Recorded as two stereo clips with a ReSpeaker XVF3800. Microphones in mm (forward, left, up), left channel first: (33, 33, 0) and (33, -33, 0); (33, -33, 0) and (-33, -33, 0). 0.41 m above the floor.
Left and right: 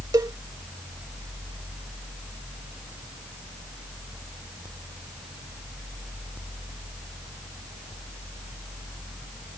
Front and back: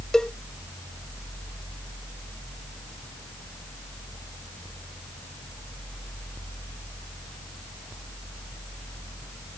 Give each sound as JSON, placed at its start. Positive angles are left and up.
{"t": 0.1, "sound": "a cowbell", "azimuth_deg": -80}